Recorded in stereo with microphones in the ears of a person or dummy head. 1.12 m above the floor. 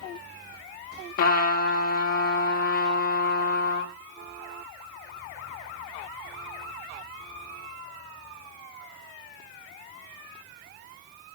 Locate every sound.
1.2 s a trumpet: 50° left (ahead or behind), 2.5 m